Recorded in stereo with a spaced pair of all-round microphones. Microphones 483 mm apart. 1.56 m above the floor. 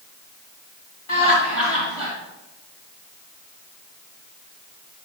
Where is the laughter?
85° left, 3 m.